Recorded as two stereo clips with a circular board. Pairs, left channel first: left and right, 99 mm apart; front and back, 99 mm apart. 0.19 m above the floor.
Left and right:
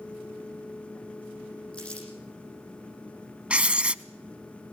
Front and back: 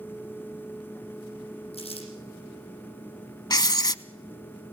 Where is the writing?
15° right, 0.5 m.